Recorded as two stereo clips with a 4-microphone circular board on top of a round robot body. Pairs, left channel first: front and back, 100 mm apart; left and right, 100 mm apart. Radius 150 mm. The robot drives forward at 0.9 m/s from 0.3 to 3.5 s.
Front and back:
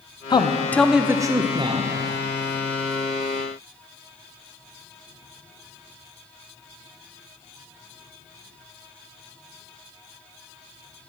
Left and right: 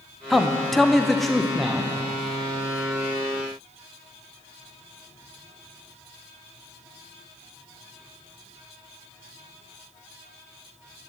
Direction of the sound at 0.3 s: Straight ahead.